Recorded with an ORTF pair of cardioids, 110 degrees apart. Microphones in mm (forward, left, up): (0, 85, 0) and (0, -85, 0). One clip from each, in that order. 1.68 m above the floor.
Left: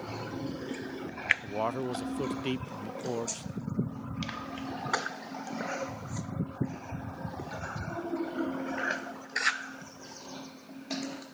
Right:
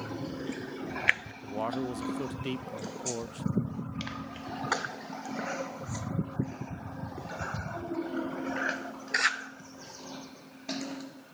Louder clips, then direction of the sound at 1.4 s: Left 1 dB; 15° left.